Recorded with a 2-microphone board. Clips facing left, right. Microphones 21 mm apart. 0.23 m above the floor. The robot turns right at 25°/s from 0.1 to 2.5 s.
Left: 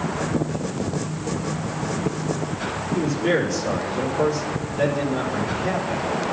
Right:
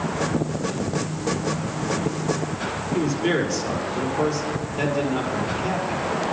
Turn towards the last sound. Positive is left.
turn(degrees=-30)  # may be behind; listen again after turning